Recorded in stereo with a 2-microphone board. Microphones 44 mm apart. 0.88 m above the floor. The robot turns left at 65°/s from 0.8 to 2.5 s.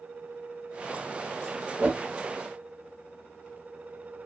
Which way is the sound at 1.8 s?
30° right (ahead or behind).